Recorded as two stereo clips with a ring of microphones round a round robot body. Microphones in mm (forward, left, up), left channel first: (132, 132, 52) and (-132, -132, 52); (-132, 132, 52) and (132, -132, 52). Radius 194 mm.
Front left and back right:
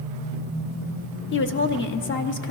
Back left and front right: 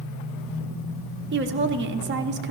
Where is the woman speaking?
Straight ahead, 0.8 m.